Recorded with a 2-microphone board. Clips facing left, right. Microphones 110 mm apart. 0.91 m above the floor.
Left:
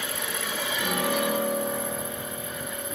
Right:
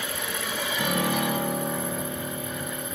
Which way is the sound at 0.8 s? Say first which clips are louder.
Right 1 dB; 40° right (ahead or behind).